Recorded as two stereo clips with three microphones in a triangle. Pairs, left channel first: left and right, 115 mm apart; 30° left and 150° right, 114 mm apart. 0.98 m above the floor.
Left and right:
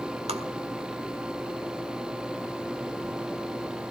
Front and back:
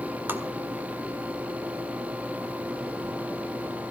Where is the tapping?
80° right, 1.7 m.